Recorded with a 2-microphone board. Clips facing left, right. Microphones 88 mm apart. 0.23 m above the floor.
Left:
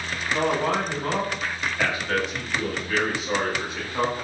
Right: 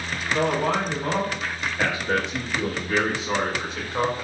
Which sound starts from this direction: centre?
A man speaking, at 0.3 s.